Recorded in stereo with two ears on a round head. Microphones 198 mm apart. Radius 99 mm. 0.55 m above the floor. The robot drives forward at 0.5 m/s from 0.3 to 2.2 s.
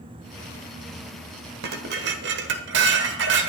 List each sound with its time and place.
1.6 s dishes clattering: 45° right (ahead or behind), 1.4 m; by 3.5 s 55° right (ahead or behind), 1.2 m